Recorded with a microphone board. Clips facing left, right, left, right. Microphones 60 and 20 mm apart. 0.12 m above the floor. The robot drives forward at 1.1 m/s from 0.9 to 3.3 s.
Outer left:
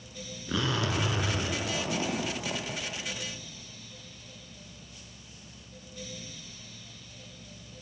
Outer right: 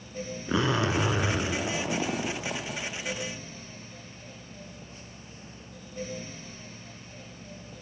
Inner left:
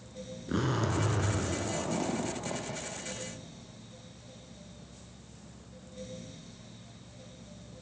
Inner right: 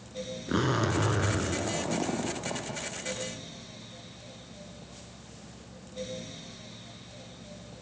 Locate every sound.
0.5 s a zipper: 25° right (ahead or behind), 0.6 m; by 2.8 s 10° right (ahead or behind), 2.0 m